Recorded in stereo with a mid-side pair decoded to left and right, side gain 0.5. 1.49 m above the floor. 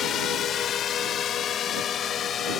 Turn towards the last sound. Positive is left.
turn(degrees=50)